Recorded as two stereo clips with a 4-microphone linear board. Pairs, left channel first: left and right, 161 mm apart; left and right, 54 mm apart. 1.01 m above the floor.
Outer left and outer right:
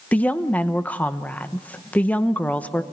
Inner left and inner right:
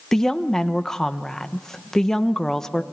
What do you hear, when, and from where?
0.1 s a woman speaking: 10° left (ahead or behind), 0.9 m